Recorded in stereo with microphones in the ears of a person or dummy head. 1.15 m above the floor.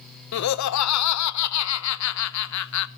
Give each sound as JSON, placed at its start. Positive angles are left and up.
{"t": 0.3, "sound": "laughter", "side_deg": 70, "distance_m": 0.5}